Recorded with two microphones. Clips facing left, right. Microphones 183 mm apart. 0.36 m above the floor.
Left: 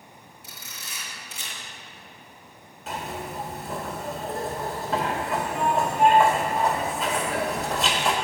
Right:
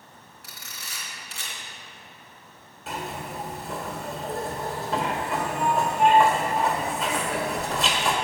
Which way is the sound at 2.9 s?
Centre (ahead or behind).